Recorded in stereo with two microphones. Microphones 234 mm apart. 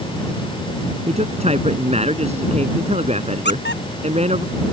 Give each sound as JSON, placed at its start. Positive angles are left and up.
{"t": 1.1, "sound": "a man speaking", "side_deg": -25}
{"t": 3.5, "sound": "a squeak", "side_deg": 45}